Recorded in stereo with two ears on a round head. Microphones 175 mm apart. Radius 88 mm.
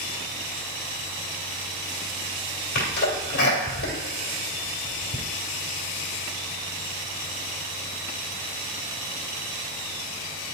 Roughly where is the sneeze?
Left.